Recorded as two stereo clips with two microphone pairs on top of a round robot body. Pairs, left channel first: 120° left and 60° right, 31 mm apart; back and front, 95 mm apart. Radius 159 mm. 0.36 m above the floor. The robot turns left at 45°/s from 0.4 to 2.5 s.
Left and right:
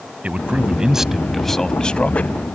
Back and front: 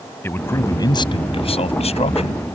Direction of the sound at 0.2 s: 110° right.